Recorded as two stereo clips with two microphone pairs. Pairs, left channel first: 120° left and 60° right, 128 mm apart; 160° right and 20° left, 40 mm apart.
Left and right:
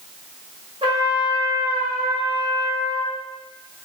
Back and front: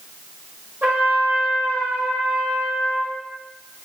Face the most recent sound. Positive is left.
turn(degrees=-15)